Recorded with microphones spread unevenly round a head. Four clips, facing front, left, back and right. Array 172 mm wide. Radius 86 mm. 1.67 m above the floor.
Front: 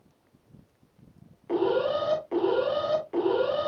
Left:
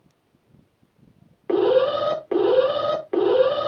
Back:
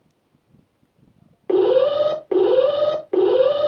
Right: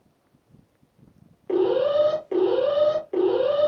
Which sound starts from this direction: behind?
An alarm, at 1.5 s.